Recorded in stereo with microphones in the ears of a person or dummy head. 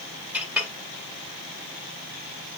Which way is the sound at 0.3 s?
10° right (ahead or behind).